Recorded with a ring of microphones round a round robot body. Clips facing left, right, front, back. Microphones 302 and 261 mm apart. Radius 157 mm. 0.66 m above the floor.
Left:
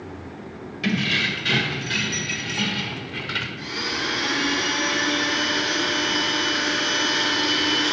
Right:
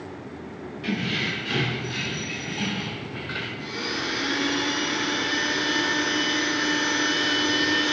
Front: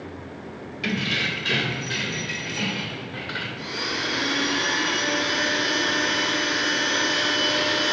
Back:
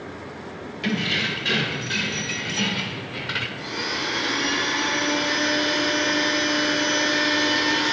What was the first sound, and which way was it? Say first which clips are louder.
Keys jangling: left 3 dB, back 2 dB; 80° left.